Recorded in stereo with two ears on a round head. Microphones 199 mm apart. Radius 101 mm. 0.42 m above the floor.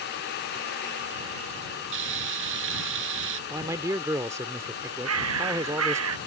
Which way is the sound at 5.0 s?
70° right (ahead or behind).